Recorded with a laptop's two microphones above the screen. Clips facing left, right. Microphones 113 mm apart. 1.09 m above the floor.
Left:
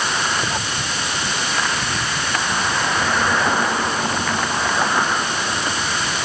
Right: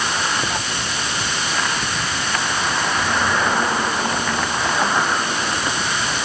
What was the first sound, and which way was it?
Only background noise.